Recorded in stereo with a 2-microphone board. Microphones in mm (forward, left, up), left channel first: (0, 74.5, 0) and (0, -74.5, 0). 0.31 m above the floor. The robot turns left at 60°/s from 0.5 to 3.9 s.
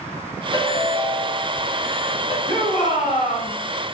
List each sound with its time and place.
0.5 s a ringtone: 145° left, 1.4 m; by 2.4 s 35° left, 1.4 m
2.5 s a shout: 155° left, 1.9 m; by 3.5 s 95° left, 1.9 m